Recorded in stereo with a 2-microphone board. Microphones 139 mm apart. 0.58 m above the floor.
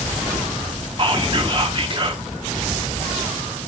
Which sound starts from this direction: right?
Whispering, at 1.0 s.